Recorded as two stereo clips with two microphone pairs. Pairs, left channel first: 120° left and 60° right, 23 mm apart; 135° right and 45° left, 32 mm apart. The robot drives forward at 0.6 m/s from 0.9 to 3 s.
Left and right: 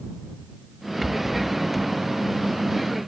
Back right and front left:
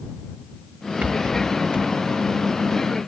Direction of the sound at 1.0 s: 20° left.